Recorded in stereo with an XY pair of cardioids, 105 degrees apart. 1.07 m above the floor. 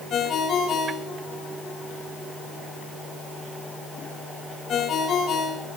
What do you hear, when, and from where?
0.1 s a ringtone: 65° left, 4.5 m